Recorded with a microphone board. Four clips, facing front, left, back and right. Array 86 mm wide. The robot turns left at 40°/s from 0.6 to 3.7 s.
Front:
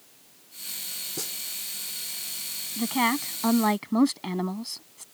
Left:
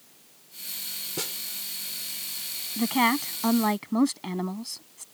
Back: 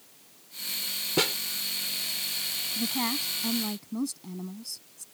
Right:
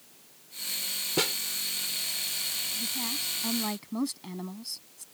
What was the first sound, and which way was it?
A snare drum, 150° right.